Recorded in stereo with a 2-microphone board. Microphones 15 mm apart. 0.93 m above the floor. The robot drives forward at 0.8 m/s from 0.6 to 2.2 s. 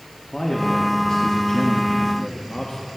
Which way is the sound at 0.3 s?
50° left (ahead or behind).